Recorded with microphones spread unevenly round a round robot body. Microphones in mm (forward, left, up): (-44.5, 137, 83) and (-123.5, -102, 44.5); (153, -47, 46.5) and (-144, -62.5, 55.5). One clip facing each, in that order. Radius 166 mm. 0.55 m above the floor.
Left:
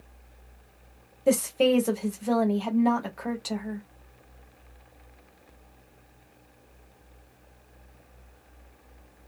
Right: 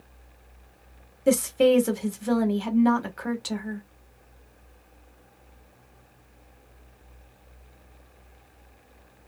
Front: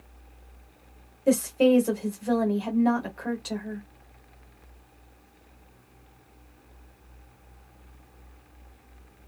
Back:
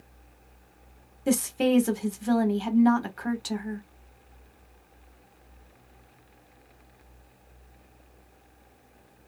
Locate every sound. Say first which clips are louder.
1.3 s a woman speaking: right 2 dB, front 3 dB; 145° right, 1.2 m